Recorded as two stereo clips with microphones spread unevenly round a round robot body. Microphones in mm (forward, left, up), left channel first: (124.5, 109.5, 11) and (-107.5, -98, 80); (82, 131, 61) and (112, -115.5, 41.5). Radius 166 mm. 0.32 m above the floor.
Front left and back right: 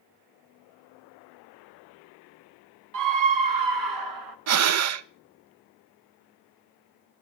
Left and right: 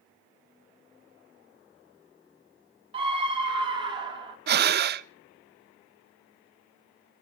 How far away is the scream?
About 1.4 m.